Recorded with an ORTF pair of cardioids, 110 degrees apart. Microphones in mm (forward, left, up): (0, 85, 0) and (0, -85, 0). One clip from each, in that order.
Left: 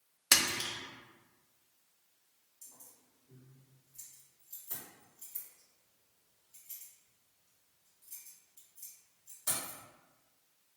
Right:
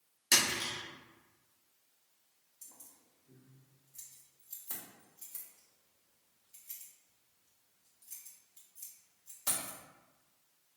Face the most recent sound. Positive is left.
turn(degrees=-55)